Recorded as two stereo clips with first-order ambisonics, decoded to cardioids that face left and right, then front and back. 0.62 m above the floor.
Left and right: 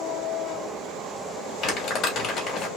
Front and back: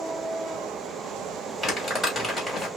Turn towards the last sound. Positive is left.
turn(degrees=70)